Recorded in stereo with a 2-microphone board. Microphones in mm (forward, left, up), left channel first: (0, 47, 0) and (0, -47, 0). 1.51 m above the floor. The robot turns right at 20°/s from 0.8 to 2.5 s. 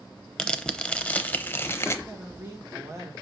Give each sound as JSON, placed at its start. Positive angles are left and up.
{"t": 0.4, "sound": "tearing paper", "side_deg": 10, "distance_m": 0.6}
{"t": 2.0, "sound": "a woman speaking", "side_deg": -20, "distance_m": 1.9}